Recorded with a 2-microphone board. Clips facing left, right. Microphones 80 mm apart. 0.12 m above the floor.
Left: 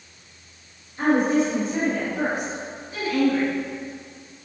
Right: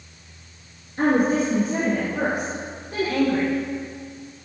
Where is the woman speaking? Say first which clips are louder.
Even; 50° right (ahead or behind), 2 m; by 3.5 s 55° right (ahead or behind), 5.5 m.